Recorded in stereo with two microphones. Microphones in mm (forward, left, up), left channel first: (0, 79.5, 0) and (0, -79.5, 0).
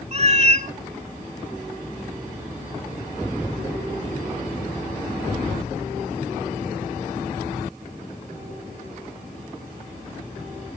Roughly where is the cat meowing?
Right.